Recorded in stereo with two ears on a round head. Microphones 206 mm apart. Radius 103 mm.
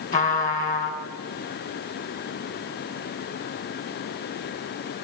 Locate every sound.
0.1 s a trumpet: 35° left (ahead or behind), 3 m